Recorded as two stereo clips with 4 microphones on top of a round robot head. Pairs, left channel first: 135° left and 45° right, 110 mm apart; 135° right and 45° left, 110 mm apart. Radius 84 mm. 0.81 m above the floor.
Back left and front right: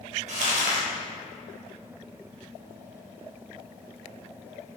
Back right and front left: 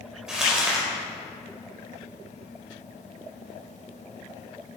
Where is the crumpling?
40° right, 4 m.